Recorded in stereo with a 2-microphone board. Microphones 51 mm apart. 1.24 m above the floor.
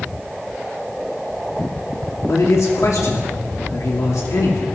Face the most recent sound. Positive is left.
turn(degrees=85)